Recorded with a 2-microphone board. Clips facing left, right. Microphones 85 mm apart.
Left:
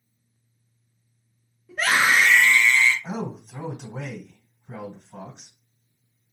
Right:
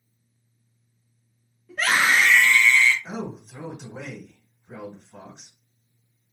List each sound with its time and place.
1.7 s a scream: 5° left (ahead or behind), 0.9 m; by 2.9 s 15° left (ahead or behind), 1.0 m
3.0 s a man speaking: 50° left (ahead or behind), 1.9 m